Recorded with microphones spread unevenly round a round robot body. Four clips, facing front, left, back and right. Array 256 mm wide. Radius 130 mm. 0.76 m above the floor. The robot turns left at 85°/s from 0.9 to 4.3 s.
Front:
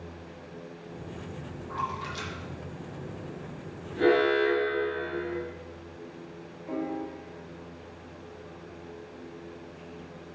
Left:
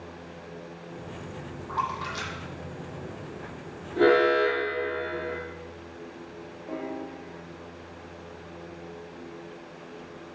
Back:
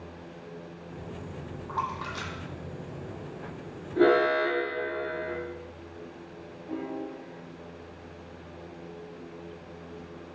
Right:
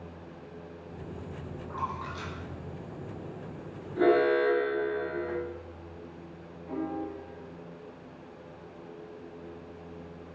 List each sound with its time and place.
1.7 s a splash: 170° left, 1.7 m; by 3.8 s 5° right, 1.7 m
4.0 s an alarm: 145° left, 2.5 m; by 5.4 s 120° left, 2.5 m
6.7 s a piano: 35° left, 2.5 m